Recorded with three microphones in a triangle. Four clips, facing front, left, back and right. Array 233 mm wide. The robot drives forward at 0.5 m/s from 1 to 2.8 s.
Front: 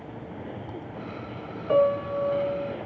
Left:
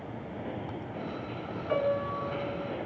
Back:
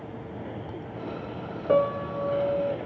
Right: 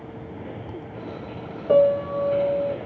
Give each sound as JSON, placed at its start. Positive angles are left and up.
{"t": 1.7, "sound": "a piano", "azimuth_deg": -125, "distance_m": 1.7}